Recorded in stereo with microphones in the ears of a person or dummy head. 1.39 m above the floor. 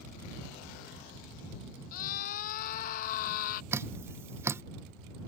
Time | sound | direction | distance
1.9 | a scream | 50° left (ahead or behind) | ?
3.7 | dripping | 15° right (ahead or behind) | ?